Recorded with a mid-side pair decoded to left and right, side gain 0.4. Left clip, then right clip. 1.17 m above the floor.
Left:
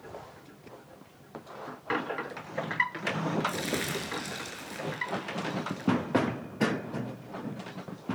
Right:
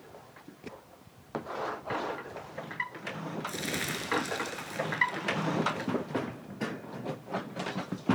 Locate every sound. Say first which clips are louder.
3.5 s crumpling: left 2 dB; 5° right, 6.5 m